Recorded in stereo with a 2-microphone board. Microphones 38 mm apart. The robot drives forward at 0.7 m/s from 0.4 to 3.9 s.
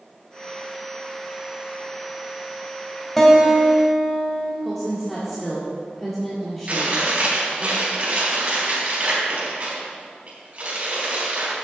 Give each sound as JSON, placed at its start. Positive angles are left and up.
{"t": 3.2, "sound": "a guitar", "side_deg": 5, "distance_m": 2.0}
{"t": 4.6, "sound": "a woman speaking", "side_deg": 10, "distance_m": 1.8}
{"t": 6.7, "sound": "chewing", "side_deg": -35, "distance_m": 3.5}